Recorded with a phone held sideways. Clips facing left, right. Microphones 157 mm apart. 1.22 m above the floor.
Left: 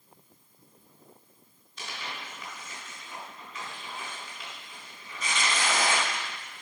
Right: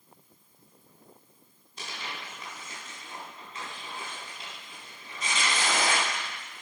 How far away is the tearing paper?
About 4.5 m.